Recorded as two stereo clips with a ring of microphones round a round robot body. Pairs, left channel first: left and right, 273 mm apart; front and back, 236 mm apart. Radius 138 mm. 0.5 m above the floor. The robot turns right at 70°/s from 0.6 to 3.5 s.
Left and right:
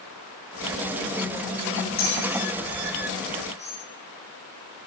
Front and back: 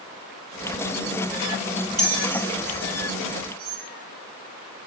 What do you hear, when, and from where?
2.0 s a bell: 75° left, 5.5 m; by 3.8 s straight behind, 5.5 m